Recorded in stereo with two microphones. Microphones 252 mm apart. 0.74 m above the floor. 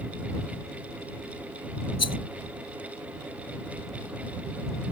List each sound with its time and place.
2.0 s a rattle: 80° left